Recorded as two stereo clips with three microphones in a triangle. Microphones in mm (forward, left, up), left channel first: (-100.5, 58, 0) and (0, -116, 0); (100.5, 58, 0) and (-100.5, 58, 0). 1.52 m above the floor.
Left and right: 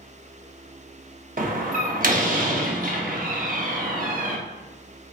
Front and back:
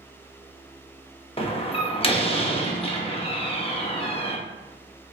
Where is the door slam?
45° right, 1.0 m.